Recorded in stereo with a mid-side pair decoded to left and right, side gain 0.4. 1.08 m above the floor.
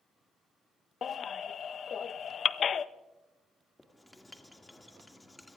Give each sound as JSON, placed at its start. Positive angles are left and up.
{"t": 1.0, "sound": "a baby crying", "azimuth_deg": 55, "distance_m": 0.6}
{"t": 3.8, "sound": "writing", "azimuth_deg": 15, "distance_m": 2.0}